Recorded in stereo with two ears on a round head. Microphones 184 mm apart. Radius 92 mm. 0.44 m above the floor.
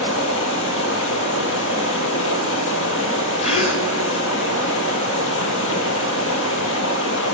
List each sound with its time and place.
0.0 s running water: 65° left (ahead or behind), 1.8 m
3.4 s a gasp: 30° left (ahead or behind), 0.8 m